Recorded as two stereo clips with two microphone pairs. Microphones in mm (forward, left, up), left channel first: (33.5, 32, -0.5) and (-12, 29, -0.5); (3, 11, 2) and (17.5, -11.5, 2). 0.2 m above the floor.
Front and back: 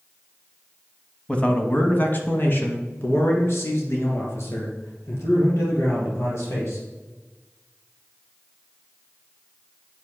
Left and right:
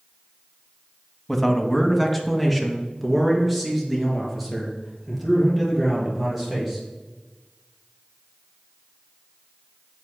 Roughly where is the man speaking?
Ahead left.